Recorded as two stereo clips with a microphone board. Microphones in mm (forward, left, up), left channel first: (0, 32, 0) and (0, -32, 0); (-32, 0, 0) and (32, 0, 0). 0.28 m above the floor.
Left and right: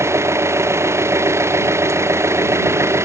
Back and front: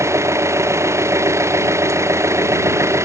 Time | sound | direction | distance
0.0 | an engine running | 45° right | ?